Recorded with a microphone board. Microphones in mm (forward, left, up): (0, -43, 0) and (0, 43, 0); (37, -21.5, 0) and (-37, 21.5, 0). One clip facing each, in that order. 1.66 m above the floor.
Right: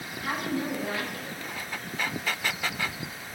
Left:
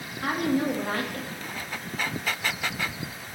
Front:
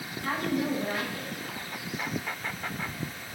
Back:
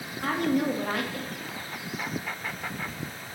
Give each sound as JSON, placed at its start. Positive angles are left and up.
{"t": 0.2, "sound": "a woman speaking", "azimuth_deg": 125, "distance_m": 2.5}